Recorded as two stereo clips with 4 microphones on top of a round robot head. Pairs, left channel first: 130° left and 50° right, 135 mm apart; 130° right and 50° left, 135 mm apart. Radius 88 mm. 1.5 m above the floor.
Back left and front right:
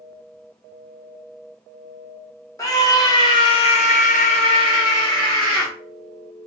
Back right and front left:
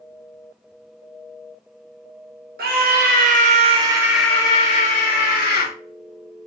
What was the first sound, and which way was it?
A scream, 65° left.